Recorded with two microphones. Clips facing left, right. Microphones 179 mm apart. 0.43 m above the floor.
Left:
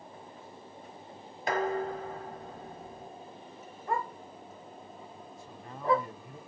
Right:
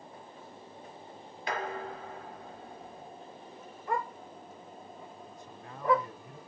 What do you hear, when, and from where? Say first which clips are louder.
1.5 s dishes clattering: left 6 dB; 45° left (ahead or behind), 1.4 m
3.9 s a dog barking: even; 30° left (ahead or behind), 3 m
5.3 s a man speaking: left 1 dB; 10° left (ahead or behind), 3 m